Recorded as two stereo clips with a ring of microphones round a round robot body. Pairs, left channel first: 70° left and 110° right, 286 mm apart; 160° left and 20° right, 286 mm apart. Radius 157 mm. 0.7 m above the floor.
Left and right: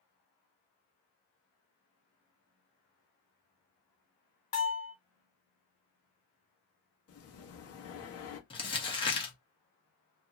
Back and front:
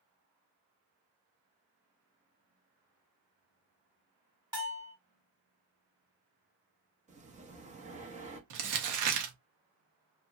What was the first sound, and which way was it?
A bell, 50° left.